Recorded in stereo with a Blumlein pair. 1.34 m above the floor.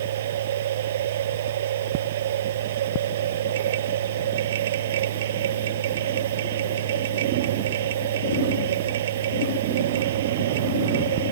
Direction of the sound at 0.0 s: 60° right.